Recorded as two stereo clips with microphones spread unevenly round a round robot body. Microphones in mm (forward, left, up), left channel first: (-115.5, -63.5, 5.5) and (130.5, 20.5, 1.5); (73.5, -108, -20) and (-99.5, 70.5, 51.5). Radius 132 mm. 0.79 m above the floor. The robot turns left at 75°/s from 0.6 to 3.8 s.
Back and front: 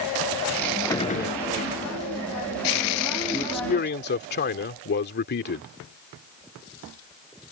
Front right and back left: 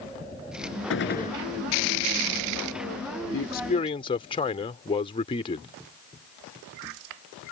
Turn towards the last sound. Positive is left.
turn(degrees=-110)